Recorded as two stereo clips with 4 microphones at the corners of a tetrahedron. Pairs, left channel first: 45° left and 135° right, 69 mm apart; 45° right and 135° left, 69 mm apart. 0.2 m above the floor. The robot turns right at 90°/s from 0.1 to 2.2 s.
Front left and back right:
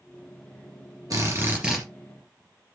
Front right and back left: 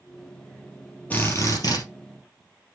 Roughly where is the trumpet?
No trumpet in this recording.